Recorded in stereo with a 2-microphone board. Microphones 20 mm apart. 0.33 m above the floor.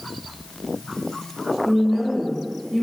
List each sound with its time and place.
1.6 s a woman speaking: centre (ahead or behind), 1.1 m